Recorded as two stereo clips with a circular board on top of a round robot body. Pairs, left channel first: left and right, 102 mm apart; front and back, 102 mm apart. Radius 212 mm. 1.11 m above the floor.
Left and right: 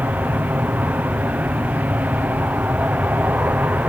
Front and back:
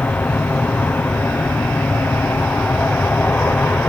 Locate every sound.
0.0 s an aircraft: 45° right